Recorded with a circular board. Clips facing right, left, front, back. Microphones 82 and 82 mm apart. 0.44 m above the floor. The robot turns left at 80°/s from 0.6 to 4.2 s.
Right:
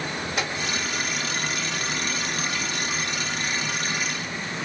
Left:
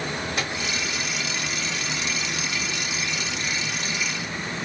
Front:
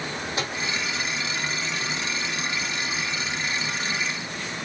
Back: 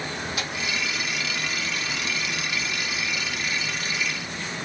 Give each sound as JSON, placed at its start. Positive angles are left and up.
{"t": 0.4, "sound": "a microwave", "azimuth_deg": -5, "distance_m": 0.8}